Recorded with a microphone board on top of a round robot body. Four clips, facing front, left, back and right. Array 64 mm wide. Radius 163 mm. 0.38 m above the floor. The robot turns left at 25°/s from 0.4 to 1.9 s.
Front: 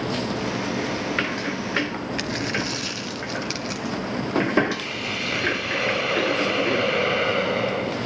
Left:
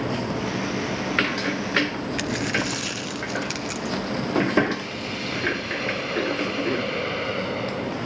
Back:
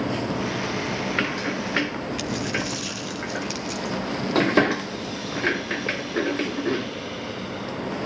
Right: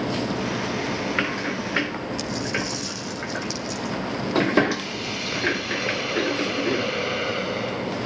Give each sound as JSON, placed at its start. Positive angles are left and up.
{"t": 2.2, "sound": "a dropped coin", "azimuth_deg": 50, "distance_m": 1.7}
{"t": 4.7, "sound": "a hiss", "azimuth_deg": 0, "distance_m": 2.0}